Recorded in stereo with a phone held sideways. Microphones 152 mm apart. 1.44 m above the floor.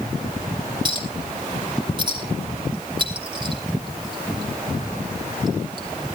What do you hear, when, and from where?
0.8 s a clink: 30° right (ahead or behind), 2.5 m